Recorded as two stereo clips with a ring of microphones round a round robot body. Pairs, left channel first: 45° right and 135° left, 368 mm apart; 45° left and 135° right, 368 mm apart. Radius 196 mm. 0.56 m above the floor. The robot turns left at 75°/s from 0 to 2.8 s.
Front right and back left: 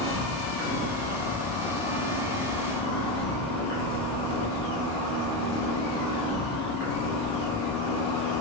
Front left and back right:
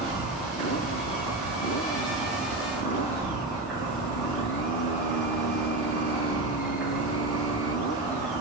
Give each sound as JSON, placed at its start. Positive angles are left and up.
{"t": 0.0, "sound": "an insect", "azimuth_deg": 165, "distance_m": 1.9}